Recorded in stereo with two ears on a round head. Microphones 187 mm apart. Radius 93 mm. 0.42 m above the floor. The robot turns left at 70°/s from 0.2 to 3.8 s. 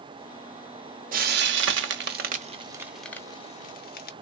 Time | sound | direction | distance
1.1 | frying | 35° right (ahead or behind) | 0.7 m